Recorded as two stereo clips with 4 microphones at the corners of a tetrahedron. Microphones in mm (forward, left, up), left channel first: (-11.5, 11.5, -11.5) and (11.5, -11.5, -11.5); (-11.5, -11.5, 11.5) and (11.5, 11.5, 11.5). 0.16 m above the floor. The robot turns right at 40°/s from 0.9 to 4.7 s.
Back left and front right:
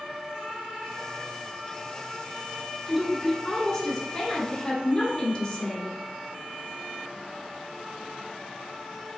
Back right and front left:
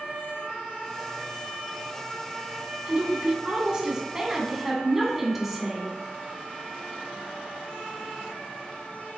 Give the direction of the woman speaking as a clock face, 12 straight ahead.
11 o'clock.